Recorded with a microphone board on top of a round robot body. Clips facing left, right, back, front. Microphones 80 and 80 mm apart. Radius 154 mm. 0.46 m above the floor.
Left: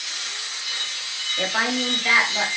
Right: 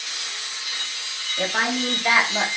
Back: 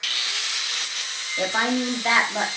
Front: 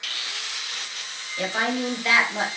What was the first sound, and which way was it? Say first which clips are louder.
A woman speaking: even, back 2 dB; straight behind.